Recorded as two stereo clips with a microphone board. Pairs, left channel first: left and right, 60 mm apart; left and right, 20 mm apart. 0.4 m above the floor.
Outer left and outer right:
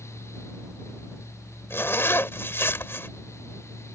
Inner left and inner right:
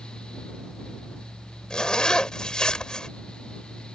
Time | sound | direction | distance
1.7 | a zipper | 40° left (ahead or behind) | ?